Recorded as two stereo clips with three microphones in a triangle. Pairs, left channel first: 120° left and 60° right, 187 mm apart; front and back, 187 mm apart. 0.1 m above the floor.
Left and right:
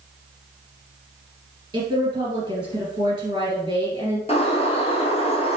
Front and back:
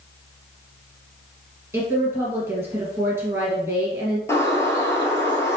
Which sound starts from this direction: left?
A bird, at 4.3 s.